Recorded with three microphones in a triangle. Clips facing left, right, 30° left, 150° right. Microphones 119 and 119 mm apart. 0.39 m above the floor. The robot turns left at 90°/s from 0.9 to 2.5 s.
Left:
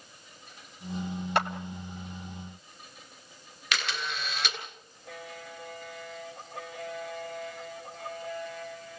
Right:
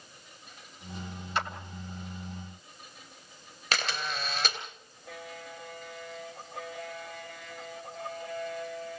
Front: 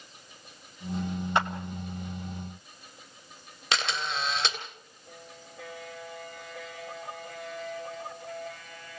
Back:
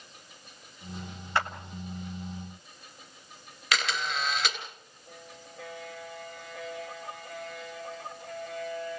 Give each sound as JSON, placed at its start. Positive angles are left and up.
{"t": 1.4, "sound": "a clap", "azimuth_deg": 100, "distance_m": 1.8}
{"t": 3.7, "sound": "a camera shutter", "azimuth_deg": -35, "distance_m": 3.5}